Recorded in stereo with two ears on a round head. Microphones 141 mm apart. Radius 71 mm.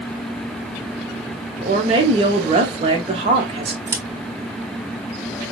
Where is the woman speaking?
35° right (ahead or behind), 1.7 m.